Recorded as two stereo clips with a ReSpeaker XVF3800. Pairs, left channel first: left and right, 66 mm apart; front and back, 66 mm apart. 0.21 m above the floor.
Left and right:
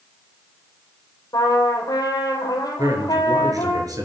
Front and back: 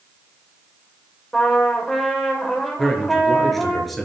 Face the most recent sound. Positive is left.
turn(degrees=-90)